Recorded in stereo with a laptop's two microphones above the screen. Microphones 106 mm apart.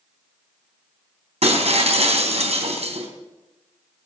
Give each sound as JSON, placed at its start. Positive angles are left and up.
{"t": 1.4, "sound": "breaking glass", "side_deg": -70, "distance_m": 3.5}